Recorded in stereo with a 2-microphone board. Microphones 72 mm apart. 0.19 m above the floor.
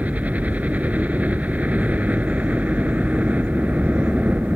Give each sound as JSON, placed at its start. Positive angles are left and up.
{"t": 0.0, "sound": "a helicopter", "side_deg": -20}